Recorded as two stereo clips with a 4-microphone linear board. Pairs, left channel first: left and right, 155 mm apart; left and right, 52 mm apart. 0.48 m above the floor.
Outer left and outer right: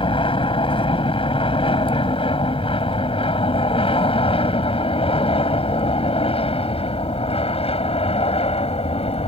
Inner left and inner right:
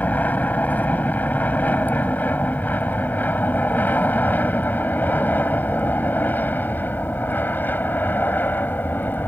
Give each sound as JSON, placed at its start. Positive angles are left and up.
{"t": 0.0, "sound": "an aircraft", "side_deg": 35}